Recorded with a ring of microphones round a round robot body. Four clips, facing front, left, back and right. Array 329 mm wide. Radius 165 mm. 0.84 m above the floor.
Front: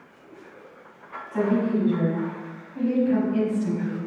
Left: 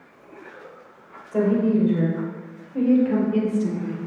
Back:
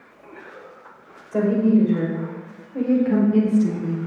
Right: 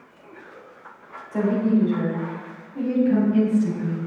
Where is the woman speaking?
155° left, 4.5 m; by 4.1 s 135° left, 3 m.